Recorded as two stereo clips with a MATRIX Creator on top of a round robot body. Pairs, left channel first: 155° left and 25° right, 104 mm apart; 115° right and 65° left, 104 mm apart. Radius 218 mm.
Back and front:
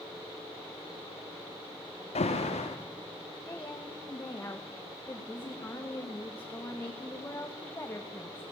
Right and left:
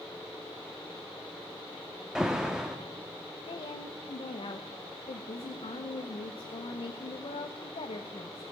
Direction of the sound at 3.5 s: 135° right.